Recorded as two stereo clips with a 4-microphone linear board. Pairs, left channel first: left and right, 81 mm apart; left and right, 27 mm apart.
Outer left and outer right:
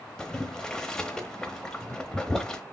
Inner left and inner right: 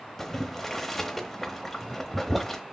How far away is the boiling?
About 0.8 m.